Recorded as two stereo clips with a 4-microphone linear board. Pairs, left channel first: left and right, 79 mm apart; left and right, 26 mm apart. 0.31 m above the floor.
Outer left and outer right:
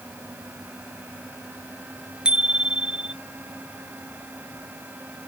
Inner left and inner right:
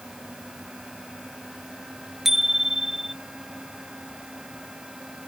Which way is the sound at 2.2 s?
10° right (ahead or behind).